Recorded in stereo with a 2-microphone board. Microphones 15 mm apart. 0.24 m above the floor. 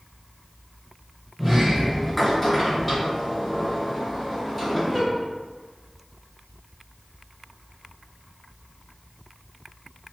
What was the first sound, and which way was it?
A sliding door, 5° left (ahead or behind).